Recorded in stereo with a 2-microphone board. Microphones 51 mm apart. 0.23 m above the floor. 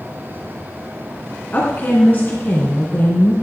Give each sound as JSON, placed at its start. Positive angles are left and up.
{"t": 1.5, "sound": "a woman speaking", "side_deg": 40, "distance_m": 2.5}